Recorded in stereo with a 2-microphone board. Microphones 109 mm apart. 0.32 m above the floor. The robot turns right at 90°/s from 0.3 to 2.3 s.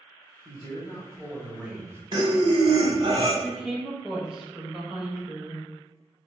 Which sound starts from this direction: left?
A man speaking, at 0.5 s.